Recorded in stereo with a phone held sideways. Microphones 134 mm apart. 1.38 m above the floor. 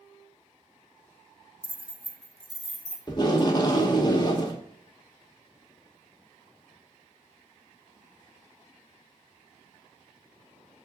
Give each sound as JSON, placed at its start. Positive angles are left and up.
{"t": 1.6, "sound": "keys jangling", "side_deg": 15, "distance_m": 1.0}
{"t": 3.1, "sound": "tape being pulled", "side_deg": 30, "distance_m": 1.2}